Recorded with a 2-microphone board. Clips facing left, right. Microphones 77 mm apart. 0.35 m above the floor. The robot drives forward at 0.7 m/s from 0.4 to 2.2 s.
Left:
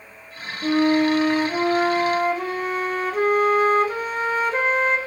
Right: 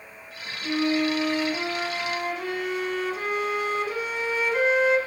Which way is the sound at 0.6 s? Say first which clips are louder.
Left 6 dB; 65° left (ahead or behind).